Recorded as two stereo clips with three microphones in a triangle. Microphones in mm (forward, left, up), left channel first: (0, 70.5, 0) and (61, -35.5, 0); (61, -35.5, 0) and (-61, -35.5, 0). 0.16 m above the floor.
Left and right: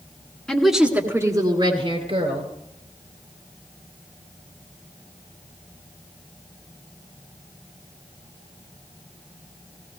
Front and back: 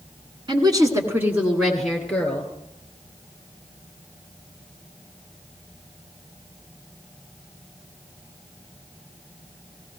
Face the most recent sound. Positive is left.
turn(degrees=-75)